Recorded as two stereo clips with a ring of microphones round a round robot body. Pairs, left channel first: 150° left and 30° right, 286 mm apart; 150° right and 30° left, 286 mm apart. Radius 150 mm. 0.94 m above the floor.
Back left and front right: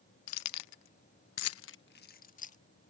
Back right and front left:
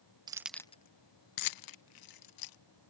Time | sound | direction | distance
0.3 | keys jangling | 105° left | ?